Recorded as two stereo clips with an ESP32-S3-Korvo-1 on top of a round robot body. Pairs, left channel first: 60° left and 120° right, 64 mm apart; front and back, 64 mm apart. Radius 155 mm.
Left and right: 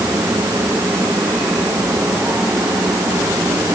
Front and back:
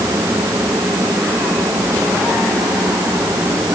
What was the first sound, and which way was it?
Only background noise.